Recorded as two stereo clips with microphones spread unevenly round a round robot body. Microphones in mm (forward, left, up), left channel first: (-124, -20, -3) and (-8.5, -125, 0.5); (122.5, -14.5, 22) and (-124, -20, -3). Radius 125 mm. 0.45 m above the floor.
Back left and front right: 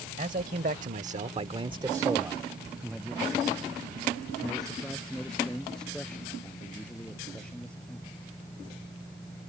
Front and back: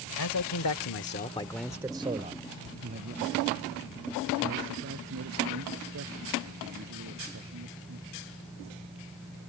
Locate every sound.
0.2 s a man speaking: 15° left; by 8.2 s 140° right